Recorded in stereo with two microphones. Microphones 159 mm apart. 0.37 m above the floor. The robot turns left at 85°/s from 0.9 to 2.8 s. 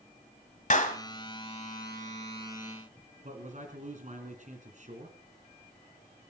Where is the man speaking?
50° right (ahead or behind), 3 m.